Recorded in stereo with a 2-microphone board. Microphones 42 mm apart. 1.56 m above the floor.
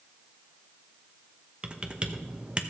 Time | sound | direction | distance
1.6 | typing on a keyboard | 20° right (ahead or behind) | 0.9 m